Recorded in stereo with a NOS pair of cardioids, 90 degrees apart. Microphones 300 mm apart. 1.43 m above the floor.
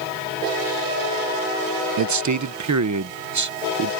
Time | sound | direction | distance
2.0 | a man speaking | 70° right | ?